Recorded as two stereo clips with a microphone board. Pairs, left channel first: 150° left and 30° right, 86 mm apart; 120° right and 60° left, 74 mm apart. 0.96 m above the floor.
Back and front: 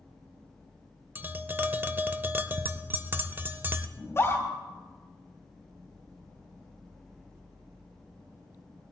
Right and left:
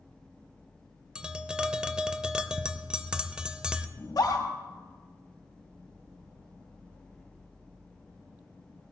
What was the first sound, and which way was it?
Tapping, 5° right.